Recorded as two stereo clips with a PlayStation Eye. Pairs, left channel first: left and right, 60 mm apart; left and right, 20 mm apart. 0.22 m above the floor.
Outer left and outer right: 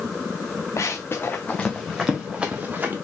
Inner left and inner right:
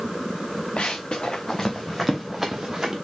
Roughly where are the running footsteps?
Left.